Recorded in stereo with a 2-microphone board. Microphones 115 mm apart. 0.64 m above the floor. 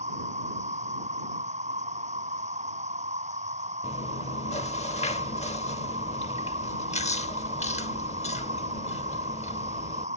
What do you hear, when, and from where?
0.0 s an insect: 80° right
3.8 s chewing: 70° left (ahead or behind)